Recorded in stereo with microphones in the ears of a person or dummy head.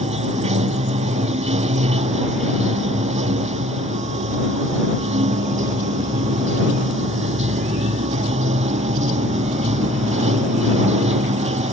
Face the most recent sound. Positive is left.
turn(degrees=-30)  # may be behind; listen again after turning